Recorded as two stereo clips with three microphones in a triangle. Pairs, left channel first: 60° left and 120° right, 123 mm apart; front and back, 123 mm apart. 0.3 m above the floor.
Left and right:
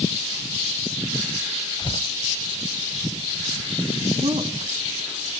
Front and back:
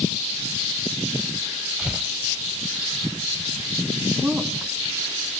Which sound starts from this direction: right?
A woman speaking, at 4.2 s.